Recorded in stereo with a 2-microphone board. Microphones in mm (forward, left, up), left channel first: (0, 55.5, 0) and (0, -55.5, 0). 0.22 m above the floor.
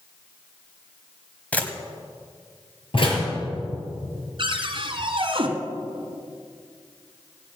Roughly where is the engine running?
I don't hear an engine running.